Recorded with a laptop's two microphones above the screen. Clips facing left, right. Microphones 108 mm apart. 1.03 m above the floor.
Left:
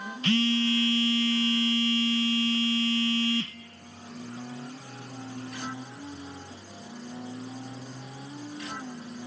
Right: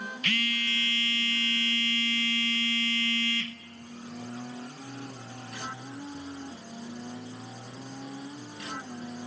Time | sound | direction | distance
0.2 | a phone buzzing | 30° left (ahead or behind) | 0.8 m